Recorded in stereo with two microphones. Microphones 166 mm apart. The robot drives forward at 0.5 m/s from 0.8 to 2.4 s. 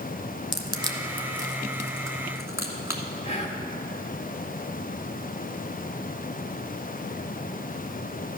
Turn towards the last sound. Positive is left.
turn(degrees=40)  # may be behind; listen again after turning